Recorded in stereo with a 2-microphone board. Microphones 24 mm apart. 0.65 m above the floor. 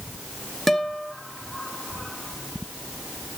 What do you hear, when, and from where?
0.7 s a guitar: 5° left (ahead or behind), 1.4 m